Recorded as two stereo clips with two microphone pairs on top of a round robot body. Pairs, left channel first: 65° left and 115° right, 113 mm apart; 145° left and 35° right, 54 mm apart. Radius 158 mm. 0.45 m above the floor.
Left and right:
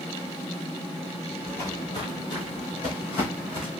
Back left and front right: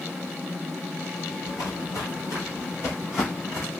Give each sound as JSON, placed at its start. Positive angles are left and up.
{"t": 1.4, "sound": "footsteps", "azimuth_deg": 145, "distance_m": 0.6}